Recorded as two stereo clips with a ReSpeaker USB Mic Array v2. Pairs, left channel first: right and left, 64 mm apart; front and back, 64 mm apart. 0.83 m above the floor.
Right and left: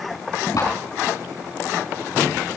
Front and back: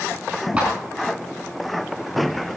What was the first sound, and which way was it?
A clap, 105° right.